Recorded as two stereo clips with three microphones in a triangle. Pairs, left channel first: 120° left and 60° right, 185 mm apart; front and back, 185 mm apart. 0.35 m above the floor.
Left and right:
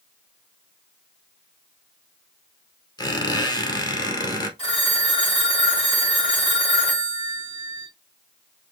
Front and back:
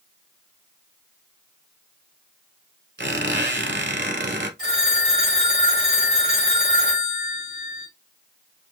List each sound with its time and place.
3.0 s a squeak: 170° right, 1.5 m
4.6 s a phone ringing: 175° left, 2.5 m